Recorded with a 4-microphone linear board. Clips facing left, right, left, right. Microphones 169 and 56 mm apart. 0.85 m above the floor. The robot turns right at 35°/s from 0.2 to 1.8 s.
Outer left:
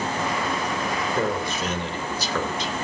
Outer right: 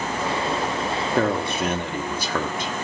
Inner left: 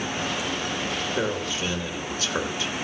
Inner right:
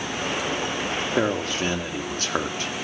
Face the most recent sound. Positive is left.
turn(degrees=-50)  # may be behind; listen again after turning